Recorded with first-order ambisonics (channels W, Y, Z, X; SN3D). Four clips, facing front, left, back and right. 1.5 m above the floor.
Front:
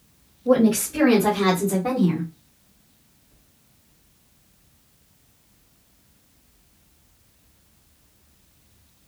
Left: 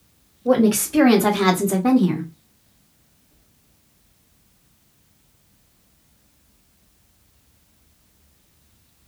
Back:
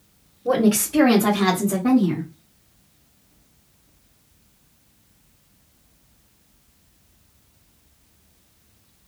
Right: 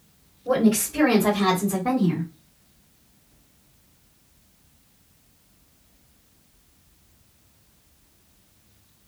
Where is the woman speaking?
130° left, 1.2 m; by 2.3 s 75° left, 1.1 m.